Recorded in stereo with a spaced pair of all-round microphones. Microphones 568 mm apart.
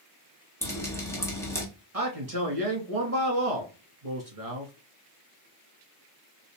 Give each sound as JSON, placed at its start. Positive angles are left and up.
{"t": 0.6, "sound": "dripping", "side_deg": 5, "distance_m": 1.5}
{"t": 1.9, "sound": "a man speaking", "side_deg": -75, "distance_m": 1.9}